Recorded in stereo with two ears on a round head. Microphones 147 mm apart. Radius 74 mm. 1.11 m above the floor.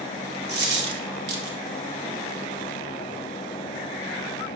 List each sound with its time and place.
0.5 s a dropped coin: 70° right (ahead or behind), 1.3 m